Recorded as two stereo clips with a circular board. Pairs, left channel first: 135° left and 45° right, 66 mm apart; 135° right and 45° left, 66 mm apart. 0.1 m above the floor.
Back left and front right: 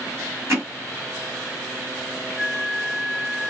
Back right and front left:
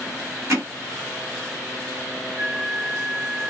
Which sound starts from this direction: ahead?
Hammering, at 0.5 s.